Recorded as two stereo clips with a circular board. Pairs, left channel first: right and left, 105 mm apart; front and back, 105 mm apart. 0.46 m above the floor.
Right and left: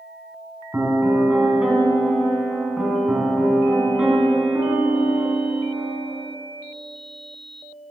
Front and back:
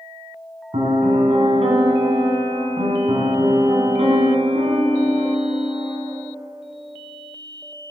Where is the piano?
170° left, 1.3 m.